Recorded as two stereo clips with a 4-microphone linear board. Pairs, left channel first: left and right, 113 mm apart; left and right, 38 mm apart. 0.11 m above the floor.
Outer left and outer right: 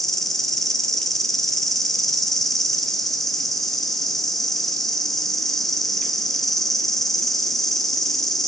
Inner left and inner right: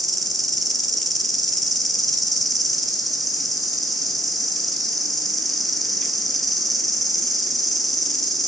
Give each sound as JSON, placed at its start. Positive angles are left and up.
{"t": 0.0, "sound": "an insect", "side_deg": 0, "distance_m": 0.8}